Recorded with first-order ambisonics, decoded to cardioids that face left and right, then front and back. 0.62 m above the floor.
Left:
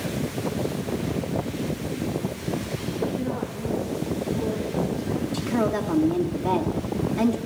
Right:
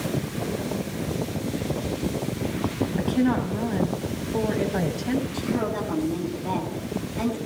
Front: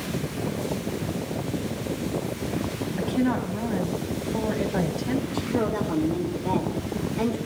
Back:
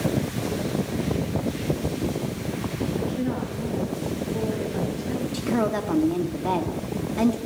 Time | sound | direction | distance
3.0 | a woman speaking | 60° right | 1.8 m
5.3 | a woman speaking | 145° left | 1.2 m